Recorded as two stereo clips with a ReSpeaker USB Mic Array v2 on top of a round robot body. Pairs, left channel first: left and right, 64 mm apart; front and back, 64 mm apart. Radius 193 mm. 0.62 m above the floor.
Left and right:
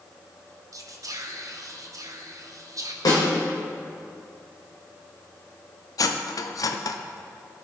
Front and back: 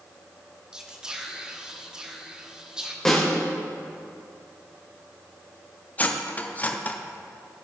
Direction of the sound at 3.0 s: 80° left.